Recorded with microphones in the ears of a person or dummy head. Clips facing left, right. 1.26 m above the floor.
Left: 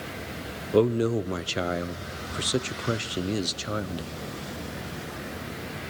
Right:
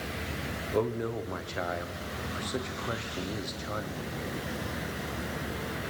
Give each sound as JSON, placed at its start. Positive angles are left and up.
{"t": 0.7, "sound": "a man speaking", "side_deg": 40, "distance_m": 0.7}